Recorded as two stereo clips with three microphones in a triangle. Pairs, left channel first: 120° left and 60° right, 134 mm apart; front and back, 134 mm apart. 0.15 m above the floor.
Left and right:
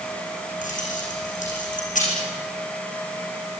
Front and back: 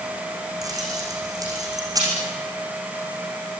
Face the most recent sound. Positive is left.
turn(degrees=120)